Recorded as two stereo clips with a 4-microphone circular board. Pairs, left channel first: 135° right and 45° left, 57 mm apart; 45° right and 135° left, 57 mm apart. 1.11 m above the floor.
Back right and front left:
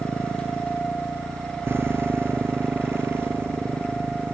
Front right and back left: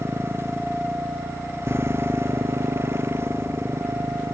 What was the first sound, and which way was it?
A motorcycle, 90° left.